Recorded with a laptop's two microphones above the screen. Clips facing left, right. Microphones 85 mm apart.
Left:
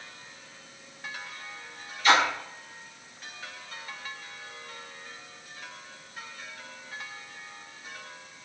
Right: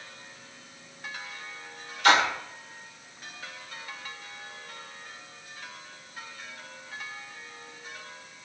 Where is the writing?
I don't hear writing.